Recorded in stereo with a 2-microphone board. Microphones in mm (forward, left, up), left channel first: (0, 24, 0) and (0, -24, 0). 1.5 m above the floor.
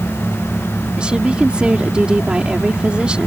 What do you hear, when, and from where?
1.0 s a woman speaking: 25° right (ahead or behind)